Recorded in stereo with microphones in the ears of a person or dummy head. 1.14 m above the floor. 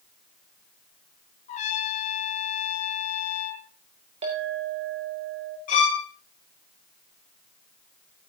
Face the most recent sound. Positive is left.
turn(degrees=45)  # may be behind; listen again after turning